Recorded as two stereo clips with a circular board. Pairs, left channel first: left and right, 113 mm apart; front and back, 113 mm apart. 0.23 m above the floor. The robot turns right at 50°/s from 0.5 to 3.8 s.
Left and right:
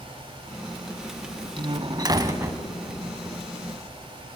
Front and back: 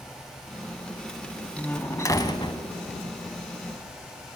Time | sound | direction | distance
1.6 | a door slam | 75° right | 1.2 m